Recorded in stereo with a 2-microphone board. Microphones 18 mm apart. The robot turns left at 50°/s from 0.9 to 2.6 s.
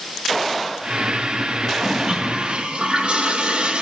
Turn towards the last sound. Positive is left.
turn(degrees=-60)